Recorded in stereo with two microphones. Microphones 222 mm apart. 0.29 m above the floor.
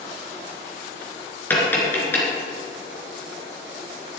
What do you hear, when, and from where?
1.5 s tapping: 10° left (ahead or behind), 3.5 m